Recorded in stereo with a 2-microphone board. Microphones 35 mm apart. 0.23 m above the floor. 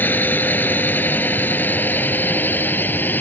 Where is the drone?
65° left (ahead or behind); by 3.2 s 70° left (ahead or behind).